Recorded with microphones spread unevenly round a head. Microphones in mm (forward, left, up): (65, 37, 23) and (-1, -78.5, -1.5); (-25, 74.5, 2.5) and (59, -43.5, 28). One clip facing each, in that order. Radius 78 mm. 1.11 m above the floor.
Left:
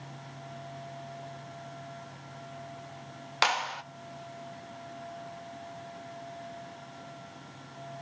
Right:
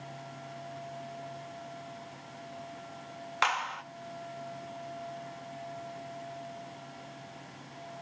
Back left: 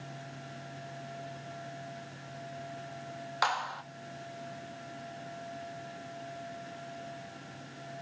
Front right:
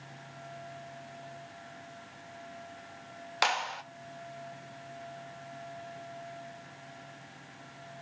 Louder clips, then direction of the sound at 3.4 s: Left 2 dB, front right 1 dB; 10° left.